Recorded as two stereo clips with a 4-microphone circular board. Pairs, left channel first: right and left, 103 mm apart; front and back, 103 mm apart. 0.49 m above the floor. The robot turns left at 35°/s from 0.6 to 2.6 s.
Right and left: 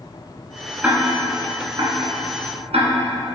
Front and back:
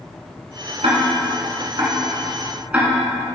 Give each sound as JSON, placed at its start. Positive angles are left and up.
{"t": 0.8, "sound": "ticking", "azimuth_deg": 165, "distance_m": 1.7}